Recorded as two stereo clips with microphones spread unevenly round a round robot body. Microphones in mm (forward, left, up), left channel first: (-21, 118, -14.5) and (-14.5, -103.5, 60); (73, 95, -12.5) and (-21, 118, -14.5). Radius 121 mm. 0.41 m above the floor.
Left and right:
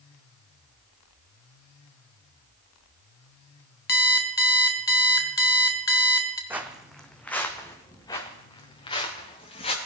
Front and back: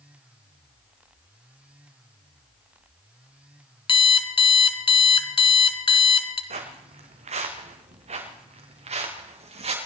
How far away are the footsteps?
About 1.7 m.